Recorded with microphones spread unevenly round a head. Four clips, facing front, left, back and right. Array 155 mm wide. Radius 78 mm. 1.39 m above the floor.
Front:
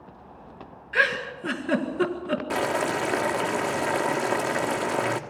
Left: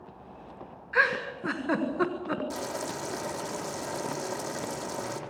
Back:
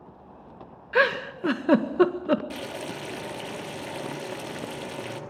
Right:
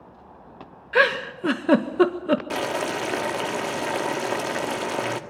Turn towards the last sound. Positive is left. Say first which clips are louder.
# right 8 dB, front 10 dB
turn(degrees=-40)